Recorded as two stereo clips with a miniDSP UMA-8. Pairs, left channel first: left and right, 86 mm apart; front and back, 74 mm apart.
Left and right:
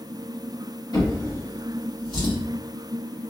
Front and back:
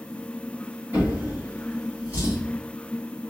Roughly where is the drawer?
Behind left.